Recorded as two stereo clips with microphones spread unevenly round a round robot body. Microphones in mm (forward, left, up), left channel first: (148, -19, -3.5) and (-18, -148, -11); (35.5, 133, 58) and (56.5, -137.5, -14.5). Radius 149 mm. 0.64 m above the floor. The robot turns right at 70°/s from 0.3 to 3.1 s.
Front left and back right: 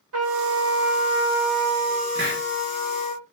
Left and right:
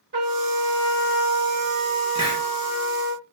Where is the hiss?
170° left, 0.5 m; by 2.4 s 165° right, 0.5 m.